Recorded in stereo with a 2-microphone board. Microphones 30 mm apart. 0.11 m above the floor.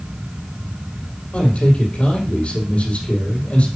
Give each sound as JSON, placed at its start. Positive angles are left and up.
{"t": 1.3, "sound": "a man speaking", "side_deg": 50, "distance_m": 3.5}